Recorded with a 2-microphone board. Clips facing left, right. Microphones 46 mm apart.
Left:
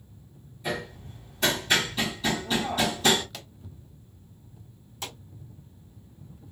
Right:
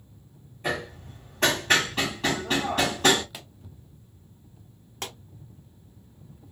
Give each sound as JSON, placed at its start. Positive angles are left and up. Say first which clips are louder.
{"t": 0.6, "sound": "hammering", "louder": "right 2 dB", "side_deg": -45, "distance_m": 1.4}
{"t": 3.3, "sound": "a pop", "louder": "even", "side_deg": -10, "distance_m": 0.7}
{"t": 5.0, "sound": "a pop", "louder": "right 2 dB", "side_deg": -55, "distance_m": 1.2}